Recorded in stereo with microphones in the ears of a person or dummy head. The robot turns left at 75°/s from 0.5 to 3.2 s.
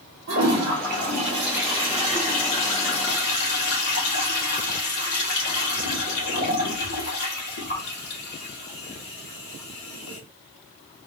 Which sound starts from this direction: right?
A toilet flushing, at 0.3 s.